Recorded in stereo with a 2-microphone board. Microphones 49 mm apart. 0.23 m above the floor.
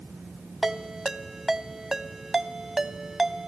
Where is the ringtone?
10° right (ahead or behind), 0.8 m.